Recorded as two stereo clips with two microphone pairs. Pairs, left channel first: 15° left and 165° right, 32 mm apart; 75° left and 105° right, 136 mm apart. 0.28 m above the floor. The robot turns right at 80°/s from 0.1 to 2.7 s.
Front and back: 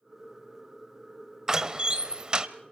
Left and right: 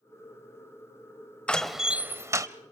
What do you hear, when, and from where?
1.5 s a door slam: 145° left, 0.9 m; by 2.5 s 135° right, 0.9 m